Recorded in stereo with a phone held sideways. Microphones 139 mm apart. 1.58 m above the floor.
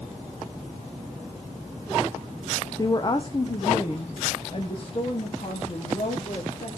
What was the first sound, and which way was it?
A woman speaking, 25° left (ahead or behind).